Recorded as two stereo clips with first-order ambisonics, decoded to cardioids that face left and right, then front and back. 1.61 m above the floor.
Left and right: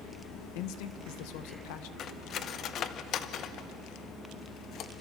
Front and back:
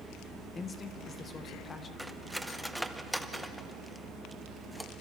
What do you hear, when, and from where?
0.6 s a man speaking: 70° left, 1.5 m
2.0 s cutlery clinking: 90° left, 0.7 m